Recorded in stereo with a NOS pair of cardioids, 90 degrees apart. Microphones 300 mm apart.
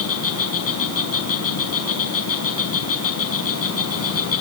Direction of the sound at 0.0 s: 50° left.